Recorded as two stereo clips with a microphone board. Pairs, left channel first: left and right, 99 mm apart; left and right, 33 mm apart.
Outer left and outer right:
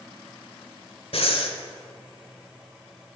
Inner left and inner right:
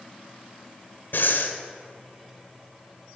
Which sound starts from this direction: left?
Breathing, at 1.1 s.